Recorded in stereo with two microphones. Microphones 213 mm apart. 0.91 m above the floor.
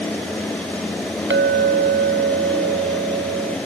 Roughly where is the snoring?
No snoring in this recording.